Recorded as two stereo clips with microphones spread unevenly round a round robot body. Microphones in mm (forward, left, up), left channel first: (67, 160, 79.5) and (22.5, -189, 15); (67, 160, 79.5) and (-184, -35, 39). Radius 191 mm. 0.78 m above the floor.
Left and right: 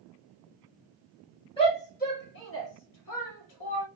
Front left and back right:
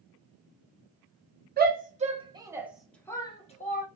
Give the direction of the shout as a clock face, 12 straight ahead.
7 o'clock.